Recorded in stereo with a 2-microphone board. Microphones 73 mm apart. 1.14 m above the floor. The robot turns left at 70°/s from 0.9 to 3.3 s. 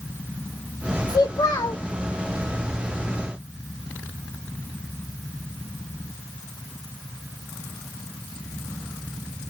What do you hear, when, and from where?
1.1 s a child speaking: 100° left, 0.5 m; by 1.8 s 45° left, 0.5 m